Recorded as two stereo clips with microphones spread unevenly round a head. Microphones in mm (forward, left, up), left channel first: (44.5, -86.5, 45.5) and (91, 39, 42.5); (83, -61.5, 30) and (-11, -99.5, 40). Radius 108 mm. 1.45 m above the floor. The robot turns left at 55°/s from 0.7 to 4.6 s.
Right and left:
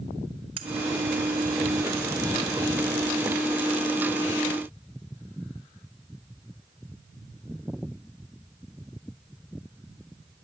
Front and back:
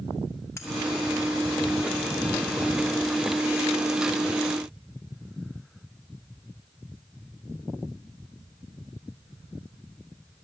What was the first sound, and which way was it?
Cutlery clinking, 85° left.